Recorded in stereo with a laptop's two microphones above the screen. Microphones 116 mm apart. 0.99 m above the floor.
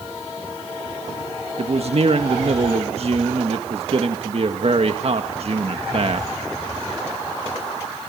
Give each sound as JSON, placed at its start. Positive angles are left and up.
{"t": 1.6, "sound": "a man speaking", "side_deg": -55, "distance_m": 1.6}